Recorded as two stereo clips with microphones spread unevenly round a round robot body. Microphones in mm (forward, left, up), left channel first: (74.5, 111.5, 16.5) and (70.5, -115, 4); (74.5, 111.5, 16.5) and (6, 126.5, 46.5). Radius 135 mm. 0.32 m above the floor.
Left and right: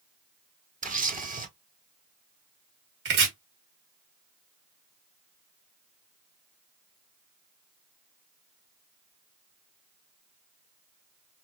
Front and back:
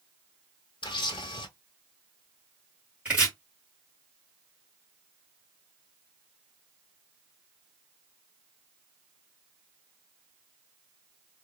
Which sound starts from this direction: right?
Chopping, at 3.0 s.